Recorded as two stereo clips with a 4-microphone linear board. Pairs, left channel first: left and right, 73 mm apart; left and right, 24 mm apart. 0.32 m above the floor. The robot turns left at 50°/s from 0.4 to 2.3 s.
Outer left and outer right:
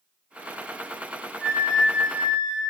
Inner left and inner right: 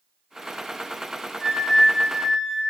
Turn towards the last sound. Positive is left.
turn(degrees=-20)  # may be behind; listen again after turning